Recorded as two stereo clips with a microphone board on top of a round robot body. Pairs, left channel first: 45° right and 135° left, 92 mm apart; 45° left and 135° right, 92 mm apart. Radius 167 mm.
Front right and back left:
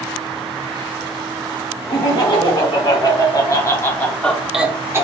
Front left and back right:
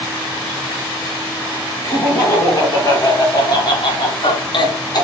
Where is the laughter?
15° right, 3 m; by 5.0 s 80° left, 1.2 m.